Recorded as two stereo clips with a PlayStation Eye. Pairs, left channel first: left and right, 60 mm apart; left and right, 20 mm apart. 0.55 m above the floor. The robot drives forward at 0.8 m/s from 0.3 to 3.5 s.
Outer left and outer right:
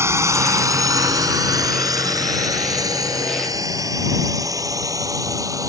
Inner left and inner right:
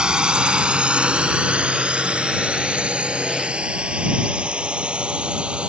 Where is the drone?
50° right (ahead or behind); by 5.7 s 65° right (ahead or behind).